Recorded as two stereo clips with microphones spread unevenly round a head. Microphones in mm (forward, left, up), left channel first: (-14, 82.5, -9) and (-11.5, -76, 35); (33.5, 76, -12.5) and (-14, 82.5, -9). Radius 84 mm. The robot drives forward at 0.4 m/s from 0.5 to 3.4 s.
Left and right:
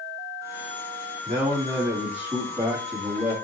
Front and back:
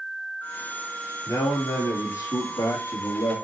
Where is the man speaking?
5° right, 2.5 m.